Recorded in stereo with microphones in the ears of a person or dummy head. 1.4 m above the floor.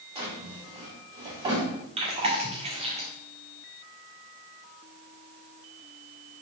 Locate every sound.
0.1 s a drawer: 35° right (ahead or behind), 3 m
2.0 s chewing: 35° right (ahead or behind), 1.6 m